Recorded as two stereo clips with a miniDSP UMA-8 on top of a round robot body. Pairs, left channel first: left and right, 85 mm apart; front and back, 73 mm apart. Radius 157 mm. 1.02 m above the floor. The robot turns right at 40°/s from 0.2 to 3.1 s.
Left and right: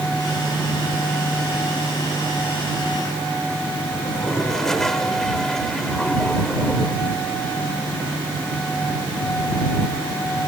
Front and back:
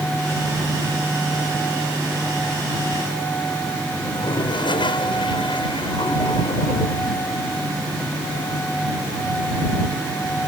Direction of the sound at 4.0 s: 5° left.